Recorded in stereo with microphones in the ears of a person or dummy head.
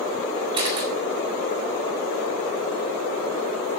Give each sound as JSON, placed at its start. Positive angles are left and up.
{"t": 0.5, "sound": "a camera shutter", "side_deg": -30, "distance_m": 3.5}